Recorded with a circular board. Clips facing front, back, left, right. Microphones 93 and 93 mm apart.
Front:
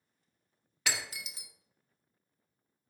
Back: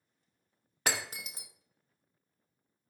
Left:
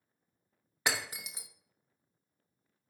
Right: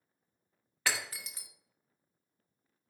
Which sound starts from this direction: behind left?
Breaking glass, at 0.9 s.